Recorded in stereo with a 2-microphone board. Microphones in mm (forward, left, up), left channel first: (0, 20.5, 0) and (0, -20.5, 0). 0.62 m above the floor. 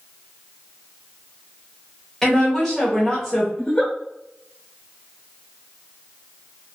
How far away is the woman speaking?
About 1.6 m.